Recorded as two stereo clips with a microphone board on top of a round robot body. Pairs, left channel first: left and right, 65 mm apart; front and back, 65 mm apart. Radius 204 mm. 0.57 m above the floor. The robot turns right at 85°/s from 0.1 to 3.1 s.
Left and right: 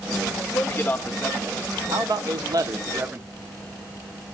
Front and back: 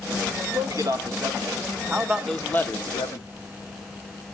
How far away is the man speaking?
About 1.7 m.